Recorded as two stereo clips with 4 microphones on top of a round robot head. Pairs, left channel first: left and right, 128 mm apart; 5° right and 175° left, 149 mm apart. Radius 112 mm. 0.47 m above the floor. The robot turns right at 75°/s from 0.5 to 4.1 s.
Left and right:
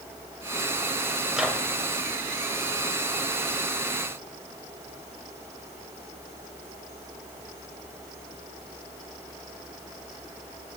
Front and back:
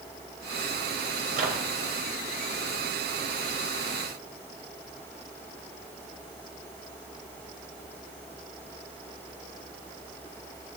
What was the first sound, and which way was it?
A microwave, straight behind.